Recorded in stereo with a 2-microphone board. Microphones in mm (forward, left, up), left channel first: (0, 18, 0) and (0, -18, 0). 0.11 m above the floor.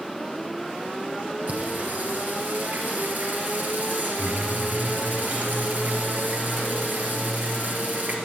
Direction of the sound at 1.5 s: 50° right (ahead or behind).